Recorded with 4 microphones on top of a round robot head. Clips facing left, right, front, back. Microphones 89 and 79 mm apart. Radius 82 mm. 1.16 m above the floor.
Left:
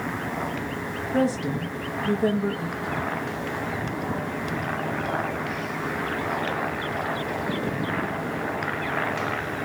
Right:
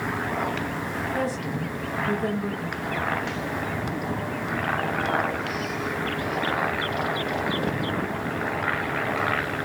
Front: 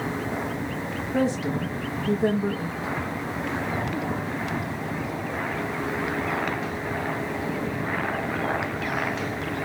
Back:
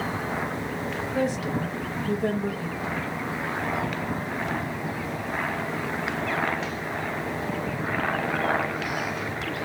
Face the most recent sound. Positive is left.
turn(degrees=45)